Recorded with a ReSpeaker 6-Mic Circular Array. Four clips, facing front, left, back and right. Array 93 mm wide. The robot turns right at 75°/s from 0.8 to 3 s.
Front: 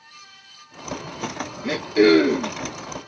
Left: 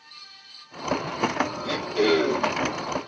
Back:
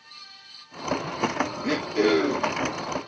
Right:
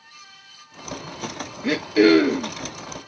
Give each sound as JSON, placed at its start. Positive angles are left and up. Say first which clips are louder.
{"t": 1.6, "sound": "throat clearing", "louder": "right 8 dB, front 7 dB", "azimuth_deg": -90, "distance_m": 3.0}